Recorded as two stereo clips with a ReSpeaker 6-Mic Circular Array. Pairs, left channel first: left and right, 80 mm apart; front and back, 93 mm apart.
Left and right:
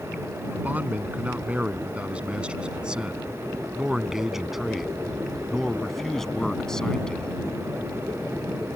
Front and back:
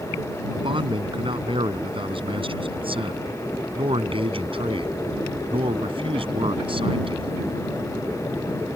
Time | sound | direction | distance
0.5 | a man speaking | 160° right | ?